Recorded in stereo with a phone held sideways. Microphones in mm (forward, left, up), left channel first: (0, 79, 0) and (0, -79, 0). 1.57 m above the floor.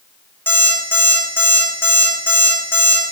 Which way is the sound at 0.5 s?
15° left (ahead or behind).